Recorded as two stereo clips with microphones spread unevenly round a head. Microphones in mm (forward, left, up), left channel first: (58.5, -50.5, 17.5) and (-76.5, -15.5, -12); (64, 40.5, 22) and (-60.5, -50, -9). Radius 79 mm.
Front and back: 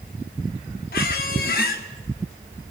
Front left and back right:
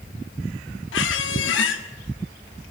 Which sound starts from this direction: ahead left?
A squeak, at 0.9 s.